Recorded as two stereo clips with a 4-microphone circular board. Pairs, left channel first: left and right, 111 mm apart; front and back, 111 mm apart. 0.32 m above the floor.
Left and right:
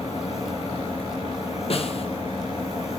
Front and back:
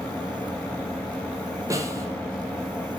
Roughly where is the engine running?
Left.